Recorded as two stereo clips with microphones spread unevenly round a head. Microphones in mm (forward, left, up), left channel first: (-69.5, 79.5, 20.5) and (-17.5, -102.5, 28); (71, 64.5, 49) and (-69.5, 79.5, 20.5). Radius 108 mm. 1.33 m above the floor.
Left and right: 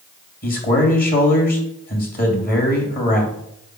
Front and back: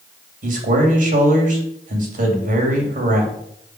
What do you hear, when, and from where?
0.4 s a man speaking: 150° left, 3 m